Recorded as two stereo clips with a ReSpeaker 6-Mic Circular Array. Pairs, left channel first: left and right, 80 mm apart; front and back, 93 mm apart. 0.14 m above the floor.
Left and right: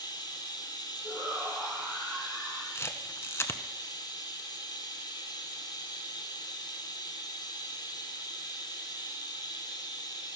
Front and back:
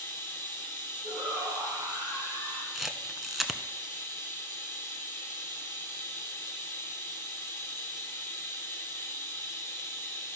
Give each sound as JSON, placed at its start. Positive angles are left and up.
{"t": 0.0, "sound": "running water", "azimuth_deg": 65, "distance_m": 1.8}
{"t": 1.0, "sound": "a shout", "azimuth_deg": 180, "distance_m": 5.0}
{"t": 2.8, "sound": "a camera shutter", "azimuth_deg": 95, "distance_m": 0.6}